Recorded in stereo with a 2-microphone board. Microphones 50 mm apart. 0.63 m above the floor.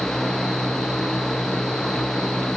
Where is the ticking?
I don't hear ticking.